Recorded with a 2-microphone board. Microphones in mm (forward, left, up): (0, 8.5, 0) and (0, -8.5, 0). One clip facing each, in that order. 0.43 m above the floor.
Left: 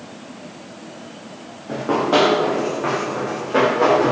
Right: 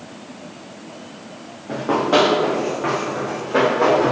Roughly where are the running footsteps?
Centre.